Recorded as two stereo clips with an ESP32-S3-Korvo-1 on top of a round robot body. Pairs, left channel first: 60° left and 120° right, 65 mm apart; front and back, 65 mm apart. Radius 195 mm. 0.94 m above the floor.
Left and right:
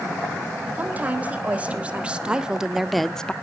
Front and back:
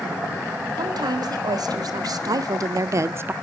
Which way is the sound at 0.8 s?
175° left.